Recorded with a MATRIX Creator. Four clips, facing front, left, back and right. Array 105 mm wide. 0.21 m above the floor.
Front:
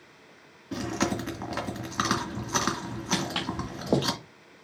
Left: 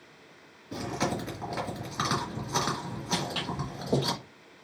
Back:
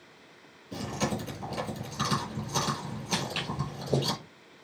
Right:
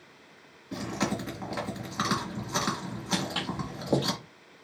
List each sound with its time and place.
0.7 s chewing: 5° right, 2.5 m
3.1 s footsteps: 10° right, 2 m